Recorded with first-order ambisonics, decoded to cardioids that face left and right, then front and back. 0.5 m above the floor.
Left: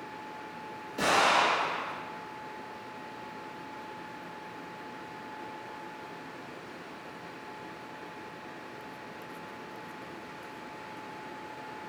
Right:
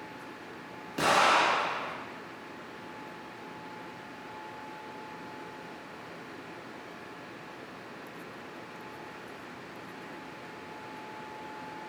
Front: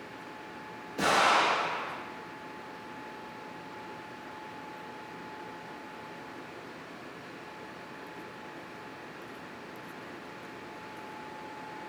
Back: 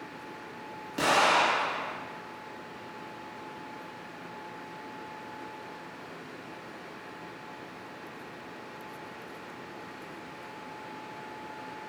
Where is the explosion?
140° right, 1.7 m.